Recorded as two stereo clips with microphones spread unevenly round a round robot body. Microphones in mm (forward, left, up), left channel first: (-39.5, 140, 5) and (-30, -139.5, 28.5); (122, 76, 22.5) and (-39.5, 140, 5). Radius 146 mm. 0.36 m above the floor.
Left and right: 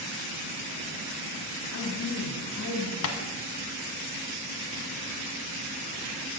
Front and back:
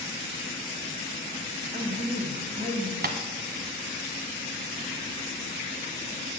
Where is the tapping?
130° left, 1.1 m.